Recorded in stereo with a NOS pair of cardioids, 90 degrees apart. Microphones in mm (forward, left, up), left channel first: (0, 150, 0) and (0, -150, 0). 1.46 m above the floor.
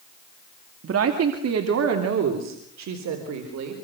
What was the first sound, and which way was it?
A woman speaking, 55° right.